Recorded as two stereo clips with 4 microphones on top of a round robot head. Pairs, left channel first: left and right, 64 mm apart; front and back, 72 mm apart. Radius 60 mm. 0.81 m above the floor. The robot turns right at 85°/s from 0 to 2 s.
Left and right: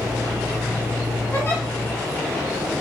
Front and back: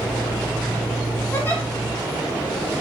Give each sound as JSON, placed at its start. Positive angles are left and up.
{"t": 1.3, "sound": "a giggle", "azimuth_deg": 40, "distance_m": 1.3}